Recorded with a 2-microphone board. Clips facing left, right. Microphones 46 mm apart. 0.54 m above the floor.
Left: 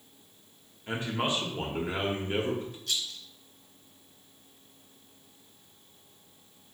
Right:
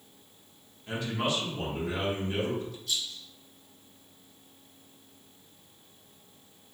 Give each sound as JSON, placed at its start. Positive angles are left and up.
{"t": 0.9, "sound": "a man speaking", "side_deg": 30, "distance_m": 1.1}
{"t": 2.9, "sound": "a rattle", "side_deg": 80, "distance_m": 0.9}